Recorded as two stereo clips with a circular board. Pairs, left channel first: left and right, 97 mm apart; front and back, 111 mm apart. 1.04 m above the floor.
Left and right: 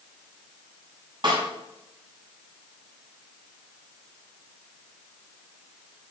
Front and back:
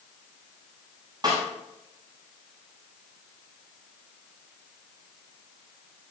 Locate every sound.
1.2 s a snare drum: 130° right, 7.5 m